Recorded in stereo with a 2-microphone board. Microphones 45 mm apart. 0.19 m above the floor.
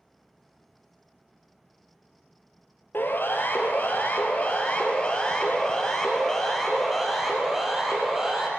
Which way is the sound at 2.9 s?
55° left (ahead or behind).